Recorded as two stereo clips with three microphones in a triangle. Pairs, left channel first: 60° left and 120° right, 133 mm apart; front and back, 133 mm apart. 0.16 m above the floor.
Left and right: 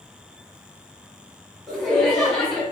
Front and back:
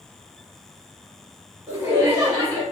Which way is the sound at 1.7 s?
140° left.